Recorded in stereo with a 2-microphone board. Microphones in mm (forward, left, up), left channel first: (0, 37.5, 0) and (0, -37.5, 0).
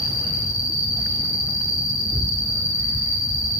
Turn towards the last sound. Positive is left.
turn(degrees=40)  # may be behind; listen again after turning